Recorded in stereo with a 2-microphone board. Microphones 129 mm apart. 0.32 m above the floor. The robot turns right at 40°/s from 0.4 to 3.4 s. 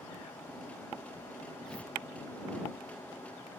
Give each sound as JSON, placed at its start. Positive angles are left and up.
{"t": 1.7, "sound": "tearing paper", "side_deg": 5}